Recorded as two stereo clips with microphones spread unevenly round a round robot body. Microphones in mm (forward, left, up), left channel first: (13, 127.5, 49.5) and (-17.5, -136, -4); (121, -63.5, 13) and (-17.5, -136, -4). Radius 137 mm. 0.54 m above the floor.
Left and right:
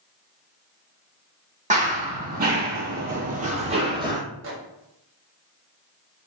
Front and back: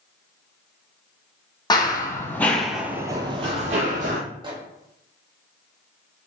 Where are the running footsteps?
25° right, 0.9 m; by 4.2 s straight behind, 0.8 m.